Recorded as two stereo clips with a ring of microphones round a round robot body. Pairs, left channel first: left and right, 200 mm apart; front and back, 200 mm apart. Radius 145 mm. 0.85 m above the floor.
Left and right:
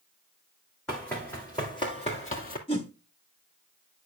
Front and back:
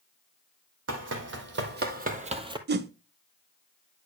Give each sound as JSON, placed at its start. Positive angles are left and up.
{"t": 0.9, "sound": "running footsteps", "azimuth_deg": 175, "distance_m": 2.0}
{"t": 2.7, "sound": "a whoosh", "azimuth_deg": 155, "distance_m": 0.7}